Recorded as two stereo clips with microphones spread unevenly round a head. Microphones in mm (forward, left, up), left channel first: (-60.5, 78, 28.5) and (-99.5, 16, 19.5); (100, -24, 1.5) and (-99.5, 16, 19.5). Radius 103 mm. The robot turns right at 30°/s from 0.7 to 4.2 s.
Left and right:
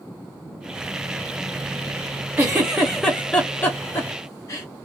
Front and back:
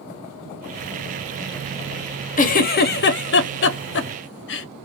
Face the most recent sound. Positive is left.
turn(degrees=0)